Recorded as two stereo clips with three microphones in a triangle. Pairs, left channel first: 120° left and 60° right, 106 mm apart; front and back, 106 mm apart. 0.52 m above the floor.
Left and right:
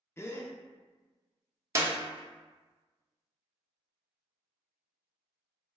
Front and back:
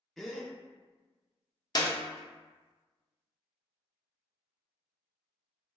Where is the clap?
15° right, 0.6 m.